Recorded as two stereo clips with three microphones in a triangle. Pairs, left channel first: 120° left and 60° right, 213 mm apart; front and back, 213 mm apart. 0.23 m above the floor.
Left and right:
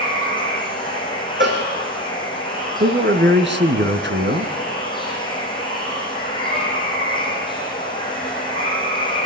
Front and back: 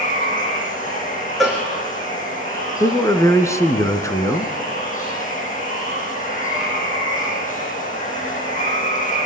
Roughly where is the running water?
Ahead left.